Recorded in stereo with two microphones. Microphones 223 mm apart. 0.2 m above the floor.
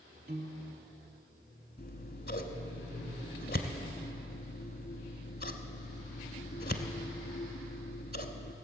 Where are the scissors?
45° left (ahead or behind), 0.9 m.